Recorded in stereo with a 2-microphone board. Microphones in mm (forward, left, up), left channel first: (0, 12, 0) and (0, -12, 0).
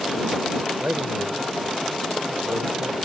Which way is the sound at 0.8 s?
85° right.